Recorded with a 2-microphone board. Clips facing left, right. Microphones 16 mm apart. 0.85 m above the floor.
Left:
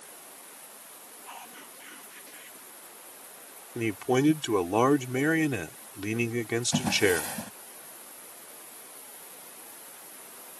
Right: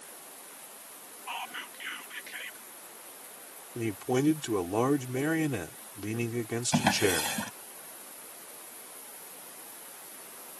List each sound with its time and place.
1.3 s whispering: 55° right (ahead or behind)
3.8 s a man speaking: 30° left (ahead or behind)
6.7 s a drawer: 75° right (ahead or behind)